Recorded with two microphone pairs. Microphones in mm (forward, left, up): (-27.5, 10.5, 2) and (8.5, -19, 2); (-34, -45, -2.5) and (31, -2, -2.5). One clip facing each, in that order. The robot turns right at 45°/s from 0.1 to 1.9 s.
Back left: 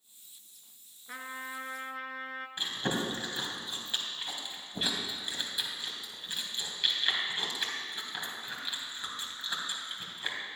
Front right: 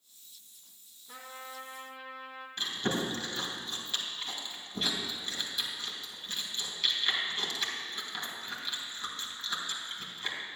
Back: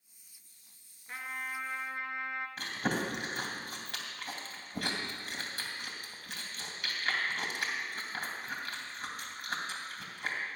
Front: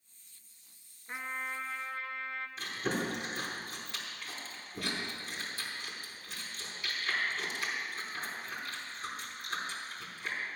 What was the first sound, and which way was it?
A trumpet, 105° left.